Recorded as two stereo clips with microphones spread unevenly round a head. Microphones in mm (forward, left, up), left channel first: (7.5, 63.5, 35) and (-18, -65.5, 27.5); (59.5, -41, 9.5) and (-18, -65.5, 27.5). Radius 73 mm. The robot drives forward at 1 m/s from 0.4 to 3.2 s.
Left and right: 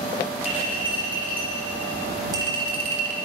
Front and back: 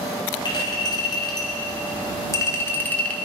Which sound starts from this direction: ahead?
A clink, at 0.5 s.